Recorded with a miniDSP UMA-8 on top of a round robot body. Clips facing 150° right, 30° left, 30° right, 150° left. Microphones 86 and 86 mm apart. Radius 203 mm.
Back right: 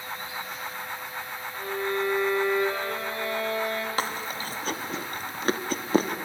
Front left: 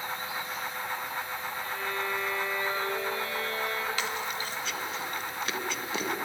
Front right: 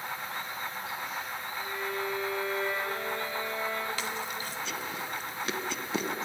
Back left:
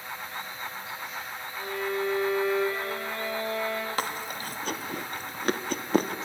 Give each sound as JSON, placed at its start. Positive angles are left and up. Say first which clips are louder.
{"t": 1.6, "sound": "a violin", "louder": "back right 8 dB, back left 5 dB", "azimuth_deg": 165, "distance_m": 5.5}
{"t": 4.0, "sound": "chewing", "louder": "back right 2 dB, back left 3 dB", "azimuth_deg": 175, "distance_m": 1.4}